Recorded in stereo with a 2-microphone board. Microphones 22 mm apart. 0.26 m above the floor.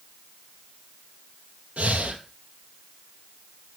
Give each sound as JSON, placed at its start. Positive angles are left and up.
{"t": 1.8, "sound": "breathing", "side_deg": -70, "distance_m": 2.0}